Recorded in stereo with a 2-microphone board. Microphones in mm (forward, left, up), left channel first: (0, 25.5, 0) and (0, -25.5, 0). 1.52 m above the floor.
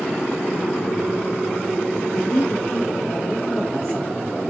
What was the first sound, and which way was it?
A man speaking, 30° left (ahead or behind).